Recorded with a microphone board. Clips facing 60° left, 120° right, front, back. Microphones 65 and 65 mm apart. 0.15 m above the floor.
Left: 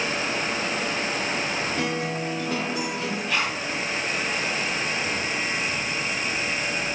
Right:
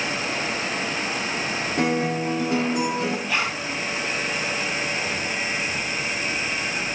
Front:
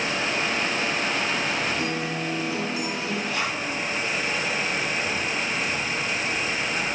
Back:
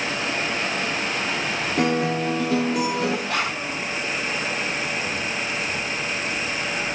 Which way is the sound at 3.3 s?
150° left.